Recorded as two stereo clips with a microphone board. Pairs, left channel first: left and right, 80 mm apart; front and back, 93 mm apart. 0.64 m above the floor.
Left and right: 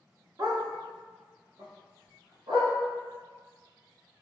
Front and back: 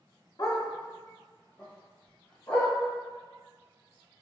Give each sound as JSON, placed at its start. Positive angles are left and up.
{"t": 0.4, "sound": "a dog barking", "azimuth_deg": -50, "distance_m": 0.6}